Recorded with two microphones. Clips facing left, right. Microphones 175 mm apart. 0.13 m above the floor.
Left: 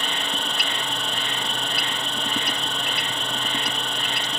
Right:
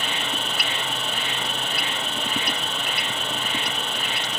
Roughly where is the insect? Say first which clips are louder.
Even; centre.